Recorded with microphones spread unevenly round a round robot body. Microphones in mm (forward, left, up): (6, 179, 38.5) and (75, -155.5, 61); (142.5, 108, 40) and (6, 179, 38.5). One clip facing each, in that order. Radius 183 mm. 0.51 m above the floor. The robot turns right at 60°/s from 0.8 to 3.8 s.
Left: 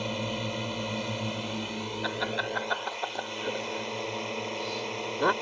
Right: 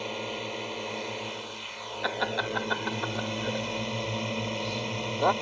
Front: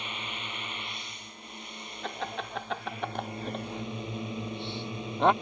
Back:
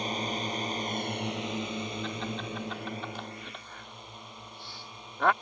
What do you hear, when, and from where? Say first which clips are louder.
0.0 s a drone: left 2 dB, back 8 dB; 100° left; by 5.4 s 80° right
2.0 s laughter: right 5 dB, back 1 dB; 65° right; by 5.3 s 40° left